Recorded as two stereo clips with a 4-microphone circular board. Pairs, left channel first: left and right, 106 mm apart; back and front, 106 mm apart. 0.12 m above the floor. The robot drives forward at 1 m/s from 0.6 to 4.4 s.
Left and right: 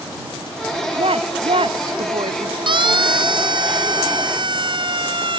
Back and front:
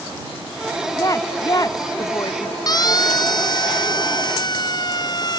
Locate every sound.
1.0 s a woman speaking: 120° right; by 2.6 s 125° right
2.7 s a siren: 130° right